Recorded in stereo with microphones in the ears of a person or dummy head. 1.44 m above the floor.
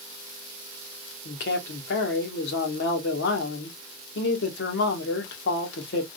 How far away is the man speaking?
About 1.5 m.